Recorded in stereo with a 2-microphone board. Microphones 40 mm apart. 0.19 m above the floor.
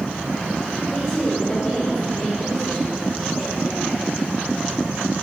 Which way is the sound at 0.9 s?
35° left (ahead or behind).